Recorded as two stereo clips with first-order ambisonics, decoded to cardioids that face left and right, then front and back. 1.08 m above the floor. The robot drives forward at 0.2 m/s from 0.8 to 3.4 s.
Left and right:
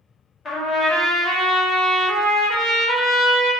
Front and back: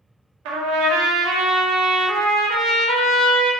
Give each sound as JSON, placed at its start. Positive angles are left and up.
{"t": 0.5, "sound": "a trumpet", "azimuth_deg": 165, "distance_m": 0.5}